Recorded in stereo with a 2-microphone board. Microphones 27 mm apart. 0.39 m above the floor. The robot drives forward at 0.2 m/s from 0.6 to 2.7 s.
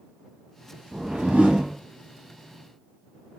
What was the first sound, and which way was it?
A whoosh, 85° right.